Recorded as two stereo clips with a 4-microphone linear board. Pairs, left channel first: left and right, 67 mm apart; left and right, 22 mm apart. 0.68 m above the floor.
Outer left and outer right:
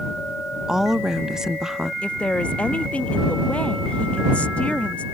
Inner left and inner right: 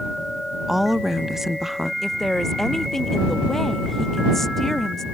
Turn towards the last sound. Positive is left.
turn(degrees=20)  # may be behind; listen again after turning